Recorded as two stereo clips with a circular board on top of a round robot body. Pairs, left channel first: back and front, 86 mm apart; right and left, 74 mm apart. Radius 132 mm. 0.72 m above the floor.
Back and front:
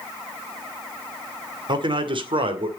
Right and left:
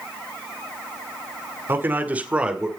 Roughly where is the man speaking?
Ahead left.